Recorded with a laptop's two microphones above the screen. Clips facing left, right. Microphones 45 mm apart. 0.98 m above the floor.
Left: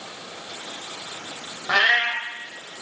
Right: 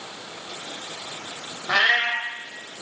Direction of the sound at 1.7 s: 10° left (ahead or behind).